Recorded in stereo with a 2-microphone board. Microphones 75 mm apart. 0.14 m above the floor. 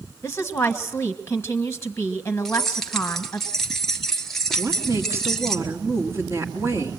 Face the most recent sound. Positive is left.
turn(degrees=-35)  # may be behind; listen again after turning